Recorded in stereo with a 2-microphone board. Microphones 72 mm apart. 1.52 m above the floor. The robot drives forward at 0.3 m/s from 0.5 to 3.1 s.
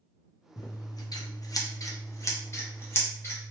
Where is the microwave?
I don't hear a microwave.